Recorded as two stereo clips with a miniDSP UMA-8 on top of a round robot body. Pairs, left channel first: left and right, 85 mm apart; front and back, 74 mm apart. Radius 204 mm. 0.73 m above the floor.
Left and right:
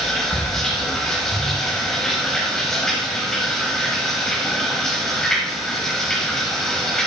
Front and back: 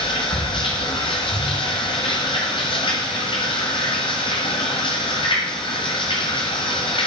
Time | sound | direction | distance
0.0 | running water | 5° left | 0.8 m